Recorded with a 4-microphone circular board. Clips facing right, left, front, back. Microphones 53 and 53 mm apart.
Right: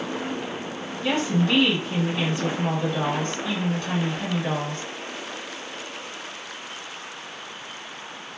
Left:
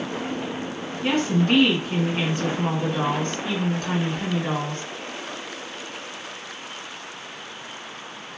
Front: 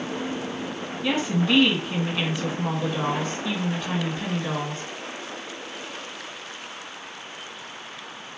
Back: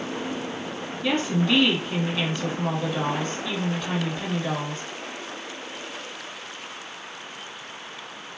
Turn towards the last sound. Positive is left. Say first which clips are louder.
# left 2 dB, even
turn(degrees=80)